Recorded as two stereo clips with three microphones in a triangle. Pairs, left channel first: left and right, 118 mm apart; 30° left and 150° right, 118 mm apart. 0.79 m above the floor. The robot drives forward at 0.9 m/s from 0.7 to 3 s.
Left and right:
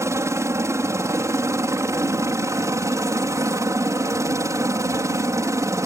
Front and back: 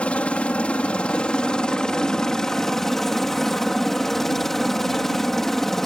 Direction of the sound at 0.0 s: 45° right.